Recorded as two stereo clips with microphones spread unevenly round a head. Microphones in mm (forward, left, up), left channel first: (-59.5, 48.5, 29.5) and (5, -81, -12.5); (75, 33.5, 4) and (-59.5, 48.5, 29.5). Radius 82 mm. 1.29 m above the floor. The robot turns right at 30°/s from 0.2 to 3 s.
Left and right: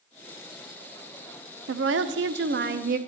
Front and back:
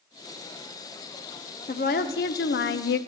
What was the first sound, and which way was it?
A woman speaking, 55° right.